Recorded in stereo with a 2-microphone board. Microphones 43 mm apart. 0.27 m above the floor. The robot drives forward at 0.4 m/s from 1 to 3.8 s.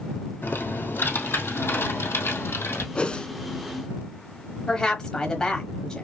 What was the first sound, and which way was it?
Typing on a keyboard, 70° left (ahead or behind).